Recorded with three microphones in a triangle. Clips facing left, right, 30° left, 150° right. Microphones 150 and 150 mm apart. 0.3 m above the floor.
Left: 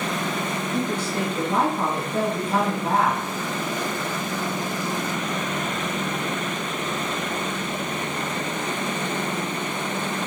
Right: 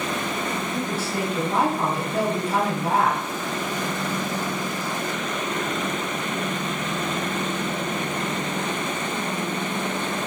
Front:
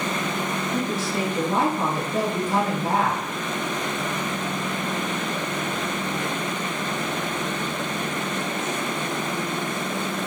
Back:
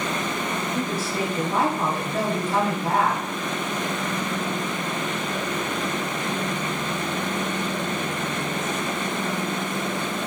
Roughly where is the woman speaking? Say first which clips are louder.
Left 2 dB, front 2 dB; ahead.